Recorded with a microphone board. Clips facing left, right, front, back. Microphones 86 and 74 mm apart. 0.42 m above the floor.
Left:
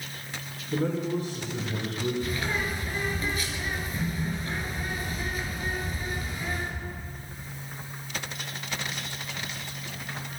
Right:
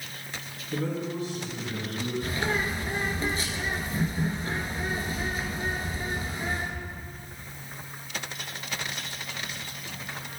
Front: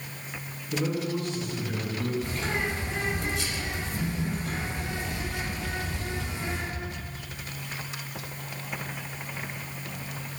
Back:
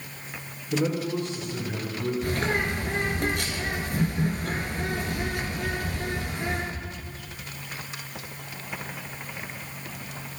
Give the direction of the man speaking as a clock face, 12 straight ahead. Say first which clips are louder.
Left 3 dB, back 3 dB; 7 o'clock.